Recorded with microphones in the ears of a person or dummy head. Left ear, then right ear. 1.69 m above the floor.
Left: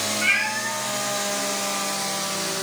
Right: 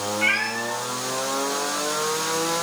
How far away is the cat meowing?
About 8.5 m.